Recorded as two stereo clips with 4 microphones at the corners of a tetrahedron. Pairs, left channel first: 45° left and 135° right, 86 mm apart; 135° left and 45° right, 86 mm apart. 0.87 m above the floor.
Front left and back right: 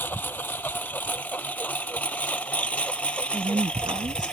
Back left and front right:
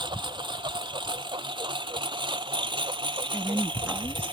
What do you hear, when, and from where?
0.0 s a lawn mower: 25° right; by 4.3 s 35° right
3.3 s a woman speaking: 110° right